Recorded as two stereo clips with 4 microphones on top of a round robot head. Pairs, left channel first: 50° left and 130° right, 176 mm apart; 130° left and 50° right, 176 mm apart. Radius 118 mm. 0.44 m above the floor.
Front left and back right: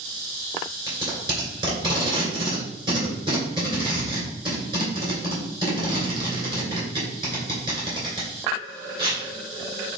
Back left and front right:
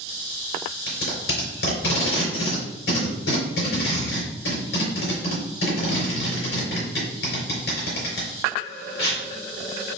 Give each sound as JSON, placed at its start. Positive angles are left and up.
{"t": 0.9, "sound": "tape being pulled", "azimuth_deg": 165, "distance_m": 2.5}